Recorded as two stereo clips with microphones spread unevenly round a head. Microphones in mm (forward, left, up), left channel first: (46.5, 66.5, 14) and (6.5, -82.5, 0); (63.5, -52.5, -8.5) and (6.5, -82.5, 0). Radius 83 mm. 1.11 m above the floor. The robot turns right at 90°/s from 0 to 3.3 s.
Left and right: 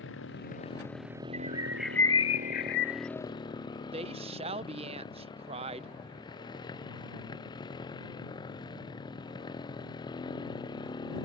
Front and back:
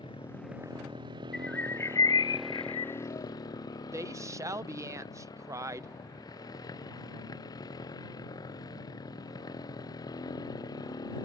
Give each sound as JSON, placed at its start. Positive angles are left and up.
{"t": 0.0, "sound": "a motorcycle", "azimuth_deg": 75}
{"t": 1.3, "sound": "a bird", "azimuth_deg": -60}
{"t": 3.9, "sound": "a woman speaking", "azimuth_deg": -130}